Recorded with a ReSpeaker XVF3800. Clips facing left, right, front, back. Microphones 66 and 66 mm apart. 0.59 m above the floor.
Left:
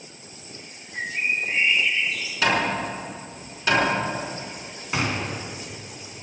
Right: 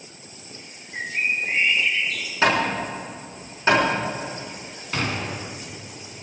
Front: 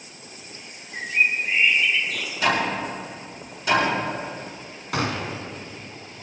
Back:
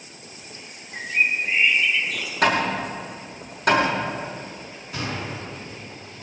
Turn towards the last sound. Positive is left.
turn(degrees=15)